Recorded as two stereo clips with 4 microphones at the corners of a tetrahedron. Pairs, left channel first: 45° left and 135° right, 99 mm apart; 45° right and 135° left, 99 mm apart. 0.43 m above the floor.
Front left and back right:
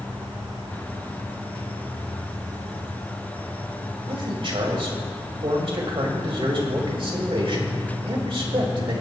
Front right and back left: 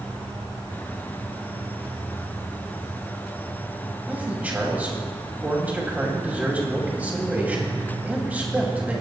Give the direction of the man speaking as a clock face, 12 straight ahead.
5 o'clock.